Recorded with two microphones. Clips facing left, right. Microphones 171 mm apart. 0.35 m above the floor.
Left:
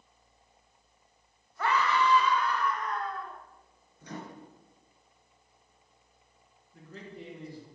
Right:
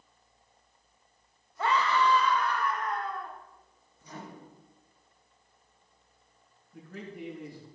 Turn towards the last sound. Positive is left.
turn(degrees=-65)  # may be behind; listen again after turning